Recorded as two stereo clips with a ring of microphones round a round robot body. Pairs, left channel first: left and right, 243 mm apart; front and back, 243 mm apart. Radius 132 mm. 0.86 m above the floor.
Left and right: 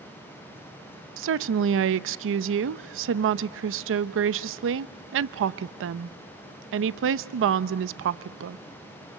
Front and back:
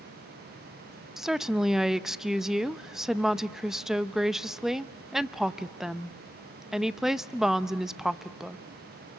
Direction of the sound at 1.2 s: 90° right.